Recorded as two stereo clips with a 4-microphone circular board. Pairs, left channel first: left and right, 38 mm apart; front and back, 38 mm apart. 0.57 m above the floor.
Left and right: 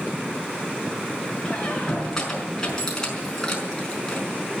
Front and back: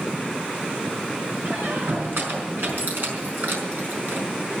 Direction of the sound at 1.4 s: 165° left.